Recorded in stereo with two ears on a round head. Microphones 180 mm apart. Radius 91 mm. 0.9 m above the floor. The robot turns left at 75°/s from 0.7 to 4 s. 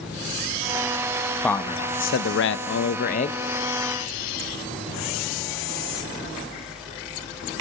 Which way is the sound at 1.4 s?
175° left.